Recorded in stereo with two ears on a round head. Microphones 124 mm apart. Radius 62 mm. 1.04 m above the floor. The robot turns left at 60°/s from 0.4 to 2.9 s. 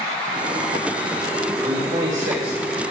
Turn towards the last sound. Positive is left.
turn(degrees=-105)